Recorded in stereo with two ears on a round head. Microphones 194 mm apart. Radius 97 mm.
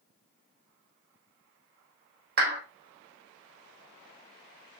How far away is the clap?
About 4 m.